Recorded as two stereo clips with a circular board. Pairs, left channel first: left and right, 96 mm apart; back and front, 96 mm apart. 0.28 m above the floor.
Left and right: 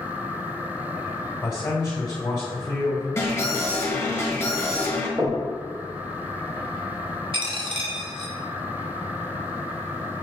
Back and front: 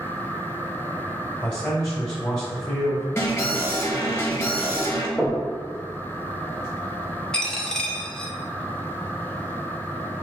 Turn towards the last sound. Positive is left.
turn(degrees=-100)